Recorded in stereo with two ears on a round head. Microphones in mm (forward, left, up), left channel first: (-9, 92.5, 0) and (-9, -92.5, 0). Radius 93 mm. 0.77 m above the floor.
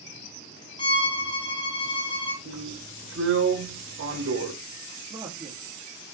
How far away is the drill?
About 4 m.